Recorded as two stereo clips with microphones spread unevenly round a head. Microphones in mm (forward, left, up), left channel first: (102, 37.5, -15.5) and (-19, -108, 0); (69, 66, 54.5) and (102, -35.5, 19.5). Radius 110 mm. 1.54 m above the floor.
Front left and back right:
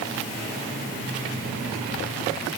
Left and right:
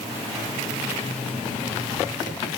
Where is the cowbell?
I don't hear a cowbell.